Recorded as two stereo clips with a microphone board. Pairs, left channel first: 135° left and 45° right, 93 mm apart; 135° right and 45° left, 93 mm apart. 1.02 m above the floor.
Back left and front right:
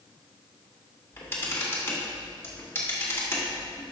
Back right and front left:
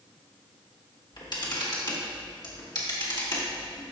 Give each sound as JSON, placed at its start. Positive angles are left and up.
{"t": 1.1, "sound": "a camera shutter", "azimuth_deg": -165, "distance_m": 1.9}